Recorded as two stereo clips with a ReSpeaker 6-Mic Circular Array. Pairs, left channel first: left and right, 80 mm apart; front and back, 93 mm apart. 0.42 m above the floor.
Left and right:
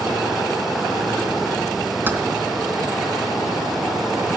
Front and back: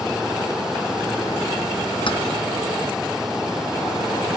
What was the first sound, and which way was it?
Keys jangling, 25° right.